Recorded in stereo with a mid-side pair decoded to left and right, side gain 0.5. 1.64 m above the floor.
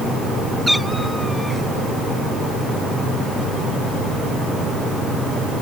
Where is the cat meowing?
Straight ahead.